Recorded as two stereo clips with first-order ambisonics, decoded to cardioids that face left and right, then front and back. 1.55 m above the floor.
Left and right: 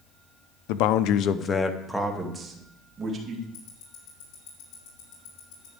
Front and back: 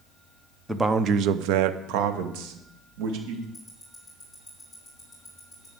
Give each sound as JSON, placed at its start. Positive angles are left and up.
{"t": 0.7, "sound": "a man speaking", "azimuth_deg": 95, "distance_m": 0.9}
{"t": 3.5, "sound": "ticking", "azimuth_deg": 85, "distance_m": 4.0}